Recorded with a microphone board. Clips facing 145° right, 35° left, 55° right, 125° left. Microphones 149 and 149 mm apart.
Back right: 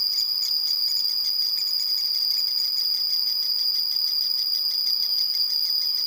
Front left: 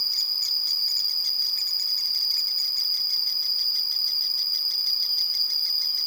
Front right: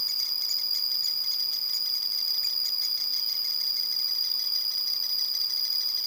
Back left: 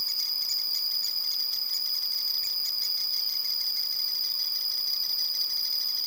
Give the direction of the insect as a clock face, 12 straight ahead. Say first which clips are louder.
Back right 1 dB, even; 1 o'clock.